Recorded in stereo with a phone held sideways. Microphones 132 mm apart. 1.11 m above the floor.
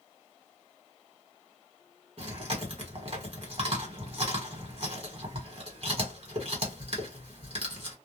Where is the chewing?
50° right (ahead or behind), 1.2 m.